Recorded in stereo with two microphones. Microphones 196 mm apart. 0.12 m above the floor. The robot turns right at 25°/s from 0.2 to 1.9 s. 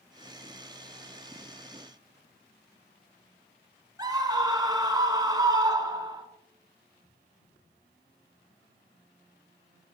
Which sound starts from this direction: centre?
A scream, at 4.0 s.